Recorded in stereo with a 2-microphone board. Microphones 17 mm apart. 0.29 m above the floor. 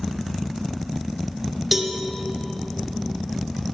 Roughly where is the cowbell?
Centre.